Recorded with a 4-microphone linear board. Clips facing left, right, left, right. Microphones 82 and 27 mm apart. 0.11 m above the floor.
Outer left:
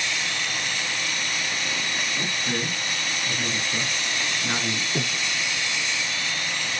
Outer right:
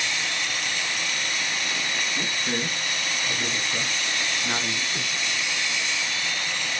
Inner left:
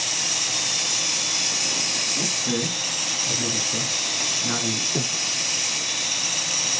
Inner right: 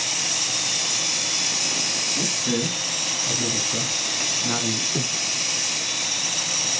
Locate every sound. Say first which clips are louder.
2.1 s a man speaking: even, inner right 1 dB; 15° right (ahead or behind), 1.7 m; by 4.8 s 15° left (ahead or behind), 1.7 m
5.0 s breathing: outer left 3 dB, even; 40° left (ahead or behind), 0.5 m